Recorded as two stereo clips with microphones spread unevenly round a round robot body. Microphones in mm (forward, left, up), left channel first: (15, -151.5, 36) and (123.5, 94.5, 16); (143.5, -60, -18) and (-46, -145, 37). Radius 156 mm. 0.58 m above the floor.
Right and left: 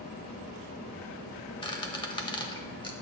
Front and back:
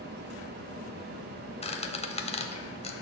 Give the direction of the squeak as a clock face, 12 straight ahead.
1 o'clock.